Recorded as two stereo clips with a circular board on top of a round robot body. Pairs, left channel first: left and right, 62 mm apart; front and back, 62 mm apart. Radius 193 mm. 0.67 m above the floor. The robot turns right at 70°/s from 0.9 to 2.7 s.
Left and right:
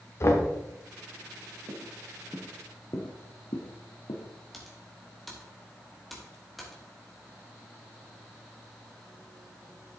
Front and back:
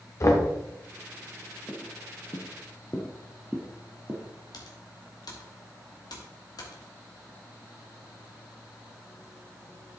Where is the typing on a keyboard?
Straight ahead, 2 m.